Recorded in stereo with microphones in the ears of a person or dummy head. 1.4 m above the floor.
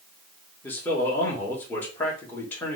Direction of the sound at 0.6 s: 10° left (ahead or behind).